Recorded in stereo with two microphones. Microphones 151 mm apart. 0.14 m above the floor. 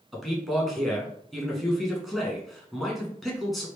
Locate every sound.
0.1 s a man speaking: centre (ahead or behind), 1.1 m